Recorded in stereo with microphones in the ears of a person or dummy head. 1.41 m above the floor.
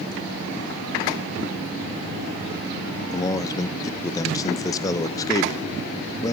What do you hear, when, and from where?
3.1 s a man speaking: 20° left (ahead or behind), 0.6 m